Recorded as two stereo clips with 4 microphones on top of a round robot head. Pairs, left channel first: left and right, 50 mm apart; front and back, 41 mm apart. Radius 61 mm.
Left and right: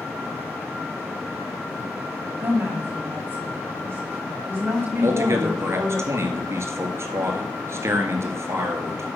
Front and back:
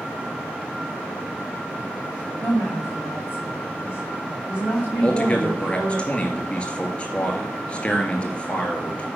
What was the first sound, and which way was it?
A woman speaking, 125° right.